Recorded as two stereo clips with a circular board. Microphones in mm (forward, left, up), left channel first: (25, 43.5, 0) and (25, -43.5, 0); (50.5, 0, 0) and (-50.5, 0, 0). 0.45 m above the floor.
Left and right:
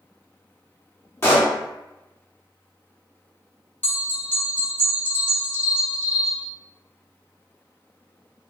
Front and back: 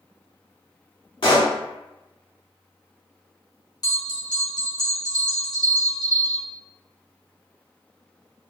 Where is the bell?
30° left, 0.8 m.